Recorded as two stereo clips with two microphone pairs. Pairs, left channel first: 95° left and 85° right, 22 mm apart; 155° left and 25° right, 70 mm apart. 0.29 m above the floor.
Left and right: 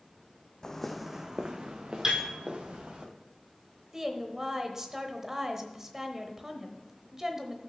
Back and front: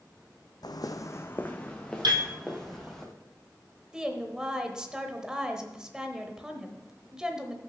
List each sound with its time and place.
0.6 s footsteps: 155° left, 0.7 m; by 3.0 s 110° right, 2.5 m
2.0 s a piano: 30° right, 1.7 m
3.9 s a woman speaking: 90° right, 0.9 m